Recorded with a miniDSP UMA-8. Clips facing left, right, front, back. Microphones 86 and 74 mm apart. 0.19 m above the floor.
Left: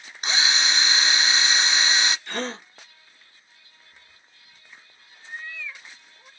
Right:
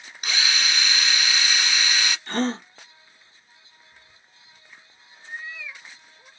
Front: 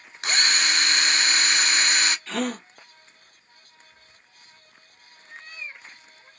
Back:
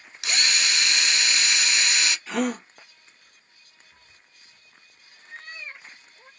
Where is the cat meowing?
165° right, 1.1 m.